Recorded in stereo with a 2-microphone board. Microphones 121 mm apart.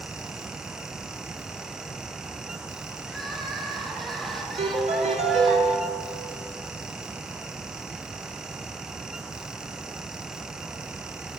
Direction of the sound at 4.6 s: 65° right (ahead or behind).